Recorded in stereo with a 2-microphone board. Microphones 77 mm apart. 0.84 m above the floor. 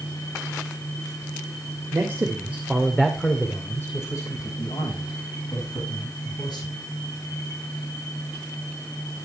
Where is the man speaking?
35° right (ahead or behind), 2.5 m; by 6.7 s 70° left (ahead or behind), 6.5 m.